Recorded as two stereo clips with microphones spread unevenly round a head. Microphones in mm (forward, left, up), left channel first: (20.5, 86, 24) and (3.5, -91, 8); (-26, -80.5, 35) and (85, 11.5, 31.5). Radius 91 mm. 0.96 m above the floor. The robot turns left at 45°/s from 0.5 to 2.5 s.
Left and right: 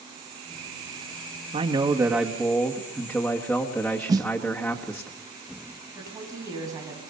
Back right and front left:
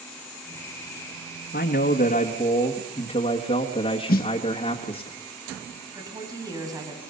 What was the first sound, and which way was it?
A man speaking, 145° right.